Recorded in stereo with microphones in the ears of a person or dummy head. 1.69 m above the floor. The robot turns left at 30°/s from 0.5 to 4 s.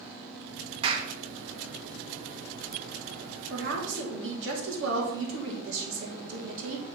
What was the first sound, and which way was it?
A clap, 30° right (ahead or behind).